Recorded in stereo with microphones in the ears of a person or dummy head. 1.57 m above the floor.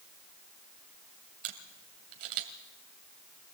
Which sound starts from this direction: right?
A camera shutter, at 1.4 s.